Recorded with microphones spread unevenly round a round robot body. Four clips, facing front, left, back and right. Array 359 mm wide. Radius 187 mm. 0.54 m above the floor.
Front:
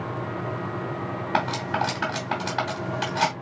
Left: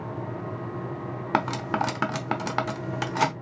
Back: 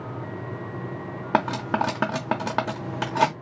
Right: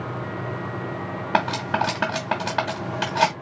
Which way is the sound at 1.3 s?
170° left.